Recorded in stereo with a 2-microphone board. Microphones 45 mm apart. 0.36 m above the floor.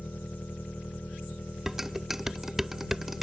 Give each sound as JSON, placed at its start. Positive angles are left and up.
{"t": 0.0, "sound": "an engine running", "side_deg": 40}
{"t": 1.7, "sound": "dishes clattering", "side_deg": -5}